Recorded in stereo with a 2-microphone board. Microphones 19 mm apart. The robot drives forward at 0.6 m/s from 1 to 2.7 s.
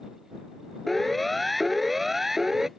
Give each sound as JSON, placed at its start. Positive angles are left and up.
{"t": 0.9, "sound": "a siren", "side_deg": 10}